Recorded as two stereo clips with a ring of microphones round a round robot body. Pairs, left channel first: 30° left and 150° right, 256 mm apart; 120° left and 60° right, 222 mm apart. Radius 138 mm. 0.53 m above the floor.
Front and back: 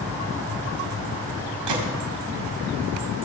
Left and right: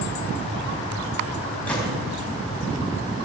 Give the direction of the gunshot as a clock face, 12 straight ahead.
5 o'clock.